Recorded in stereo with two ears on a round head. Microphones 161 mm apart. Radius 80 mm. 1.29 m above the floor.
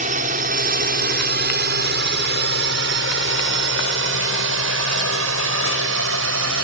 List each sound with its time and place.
0.0 s a drone: 45° right (ahead or behind); by 6.6 s 85° right